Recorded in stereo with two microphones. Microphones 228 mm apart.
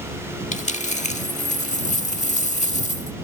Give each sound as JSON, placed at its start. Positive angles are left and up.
{"t": 0.5, "sound": "a dropped coin", "side_deg": 30}